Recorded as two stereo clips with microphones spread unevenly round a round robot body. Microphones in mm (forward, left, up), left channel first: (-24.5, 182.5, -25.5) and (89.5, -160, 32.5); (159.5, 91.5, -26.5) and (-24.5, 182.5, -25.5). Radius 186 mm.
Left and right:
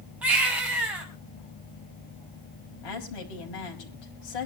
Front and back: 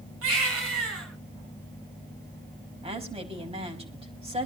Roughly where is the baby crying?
Behind.